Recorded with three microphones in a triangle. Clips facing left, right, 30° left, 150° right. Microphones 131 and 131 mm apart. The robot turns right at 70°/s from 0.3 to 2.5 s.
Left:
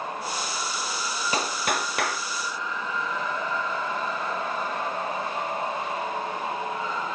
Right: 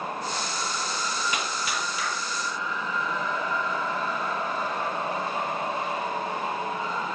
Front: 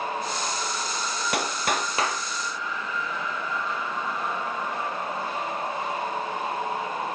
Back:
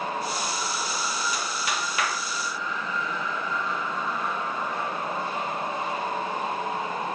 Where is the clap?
40° left, 1.8 m; by 2.2 s 100° left, 1.8 m.